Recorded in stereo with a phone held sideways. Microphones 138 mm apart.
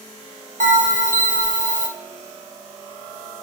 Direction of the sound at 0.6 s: 70° right (ahead or behind).